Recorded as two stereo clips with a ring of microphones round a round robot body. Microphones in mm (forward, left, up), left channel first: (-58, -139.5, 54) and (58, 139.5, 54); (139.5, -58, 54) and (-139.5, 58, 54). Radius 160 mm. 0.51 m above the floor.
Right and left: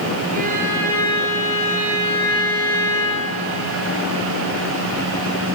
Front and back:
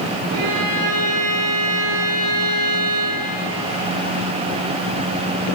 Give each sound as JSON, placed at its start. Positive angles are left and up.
{"t": 0.3, "sound": "a violin", "azimuth_deg": 130, "distance_m": 4.5}